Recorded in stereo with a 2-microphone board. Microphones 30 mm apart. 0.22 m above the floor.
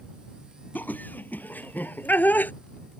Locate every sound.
0.8 s laughter: 70° left (ahead or behind)